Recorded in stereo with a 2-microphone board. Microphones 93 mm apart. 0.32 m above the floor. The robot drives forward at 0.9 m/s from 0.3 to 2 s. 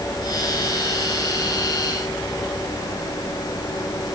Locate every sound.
Only background noise.